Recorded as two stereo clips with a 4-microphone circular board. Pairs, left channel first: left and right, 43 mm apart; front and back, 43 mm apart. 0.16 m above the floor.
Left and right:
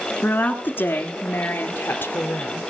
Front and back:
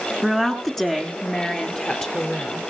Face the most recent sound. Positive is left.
turn(degrees=60)